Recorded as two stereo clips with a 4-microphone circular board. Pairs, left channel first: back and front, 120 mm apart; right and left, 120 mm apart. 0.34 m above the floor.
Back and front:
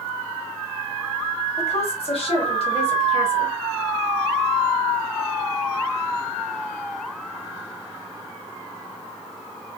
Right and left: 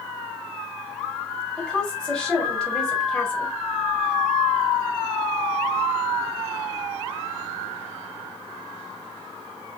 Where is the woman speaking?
170° right, 1.3 m.